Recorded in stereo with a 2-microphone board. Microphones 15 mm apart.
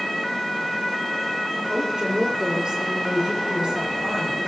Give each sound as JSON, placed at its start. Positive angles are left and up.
{"t": 1.7, "sound": "a woman speaking", "side_deg": -65, "distance_m": 7.5}